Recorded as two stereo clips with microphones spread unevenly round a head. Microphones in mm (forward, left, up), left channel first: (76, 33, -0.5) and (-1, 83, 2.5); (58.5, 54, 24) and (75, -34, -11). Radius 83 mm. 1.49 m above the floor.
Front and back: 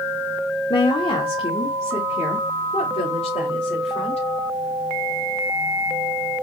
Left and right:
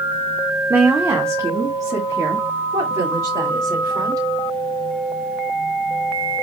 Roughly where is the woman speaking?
Ahead.